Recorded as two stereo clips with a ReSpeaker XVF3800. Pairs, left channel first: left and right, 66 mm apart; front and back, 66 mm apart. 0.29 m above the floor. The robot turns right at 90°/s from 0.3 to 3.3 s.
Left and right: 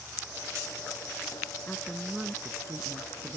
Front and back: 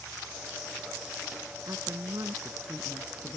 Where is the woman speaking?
145° left; by 3.4 s 65° right.